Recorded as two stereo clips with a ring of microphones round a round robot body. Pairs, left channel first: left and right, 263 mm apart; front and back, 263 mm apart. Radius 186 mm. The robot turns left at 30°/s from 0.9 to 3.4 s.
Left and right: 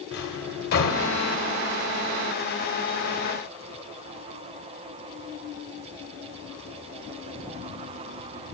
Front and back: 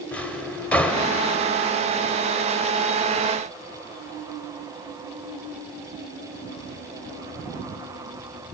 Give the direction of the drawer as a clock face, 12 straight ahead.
9 o'clock.